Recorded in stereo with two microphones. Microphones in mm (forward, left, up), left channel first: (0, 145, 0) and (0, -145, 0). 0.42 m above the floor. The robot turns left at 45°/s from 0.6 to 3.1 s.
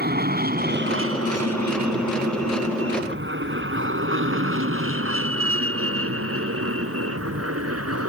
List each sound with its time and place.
0.0 s an aircraft: 35° right (ahead or behind); by 8.1 s 55° right (ahead or behind)